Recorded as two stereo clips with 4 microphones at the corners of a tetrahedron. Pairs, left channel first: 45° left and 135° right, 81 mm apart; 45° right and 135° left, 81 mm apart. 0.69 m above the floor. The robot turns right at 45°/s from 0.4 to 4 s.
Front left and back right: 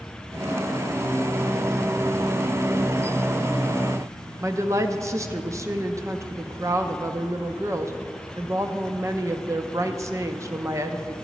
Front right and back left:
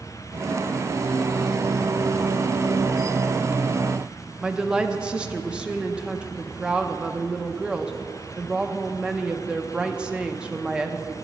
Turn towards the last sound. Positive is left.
turn(degrees=-155)